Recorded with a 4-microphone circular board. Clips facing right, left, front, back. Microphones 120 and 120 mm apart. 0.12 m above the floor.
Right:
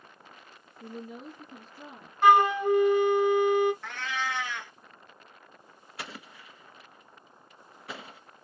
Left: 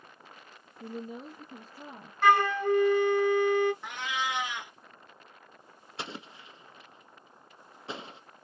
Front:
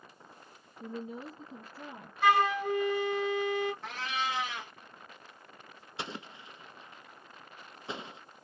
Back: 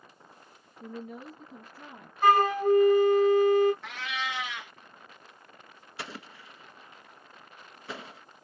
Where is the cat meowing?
25° left, 0.7 m.